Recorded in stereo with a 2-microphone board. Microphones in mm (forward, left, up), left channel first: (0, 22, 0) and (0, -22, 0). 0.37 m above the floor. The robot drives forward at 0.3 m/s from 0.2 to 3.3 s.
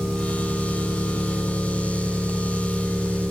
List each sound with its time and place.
0.0 s an engine running: 25° left (ahead or behind), 4 m; by 3.3 s 35° left (ahead or behind), 3.5 m